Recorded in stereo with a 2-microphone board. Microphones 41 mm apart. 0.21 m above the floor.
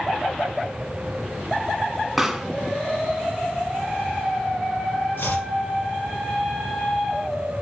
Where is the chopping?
70° left (ahead or behind), 4 m.